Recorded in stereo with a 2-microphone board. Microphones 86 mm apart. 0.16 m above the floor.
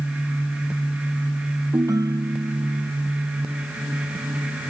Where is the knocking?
No knocking in this recording.